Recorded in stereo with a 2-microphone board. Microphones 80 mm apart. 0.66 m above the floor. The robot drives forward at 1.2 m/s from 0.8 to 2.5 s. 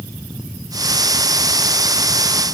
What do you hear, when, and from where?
Only background noise.